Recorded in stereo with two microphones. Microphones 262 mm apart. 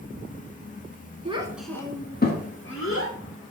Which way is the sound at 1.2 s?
25° right (ahead or behind).